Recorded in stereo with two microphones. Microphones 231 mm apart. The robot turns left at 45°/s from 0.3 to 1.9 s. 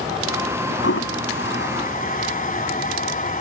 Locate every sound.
0.8 s a toilet flushing: 75° left (ahead or behind); by 3.4 s 35° left (ahead or behind)